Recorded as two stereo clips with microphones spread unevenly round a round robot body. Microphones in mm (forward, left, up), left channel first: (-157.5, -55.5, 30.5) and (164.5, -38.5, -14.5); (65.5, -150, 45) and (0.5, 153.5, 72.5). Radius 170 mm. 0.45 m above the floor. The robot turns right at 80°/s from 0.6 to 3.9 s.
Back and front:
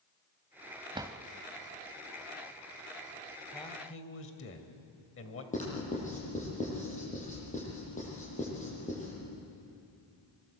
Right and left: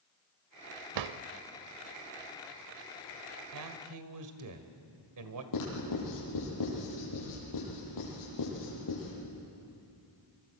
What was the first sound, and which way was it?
A drawer, 80° left.